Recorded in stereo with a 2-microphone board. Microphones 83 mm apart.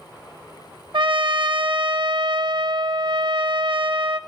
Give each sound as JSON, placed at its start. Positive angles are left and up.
{"t": 0.9, "sound": "a trumpet", "side_deg": -75, "distance_m": 1.1}